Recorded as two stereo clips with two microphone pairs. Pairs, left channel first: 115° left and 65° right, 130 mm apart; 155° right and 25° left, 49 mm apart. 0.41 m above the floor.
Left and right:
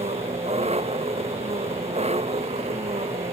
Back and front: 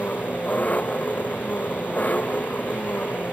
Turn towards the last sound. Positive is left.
turn(degrees=-100)